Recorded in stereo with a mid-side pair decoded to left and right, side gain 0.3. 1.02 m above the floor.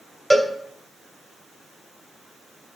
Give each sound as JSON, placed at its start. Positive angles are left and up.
{"t": 0.3, "sound": "a cowbell", "azimuth_deg": 0, "distance_m": 2.0}